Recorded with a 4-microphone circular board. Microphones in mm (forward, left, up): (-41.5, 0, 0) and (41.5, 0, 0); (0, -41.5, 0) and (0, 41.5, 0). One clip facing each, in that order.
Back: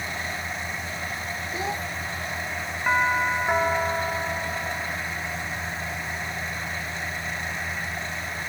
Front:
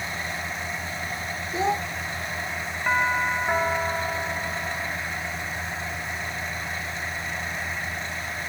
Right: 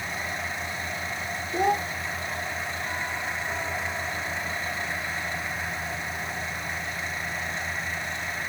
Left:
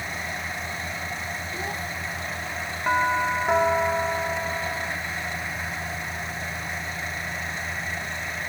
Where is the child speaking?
60° right.